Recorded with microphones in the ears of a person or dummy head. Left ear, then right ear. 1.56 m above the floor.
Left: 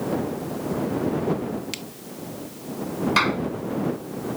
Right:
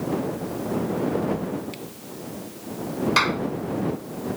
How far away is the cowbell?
I don't hear a cowbell.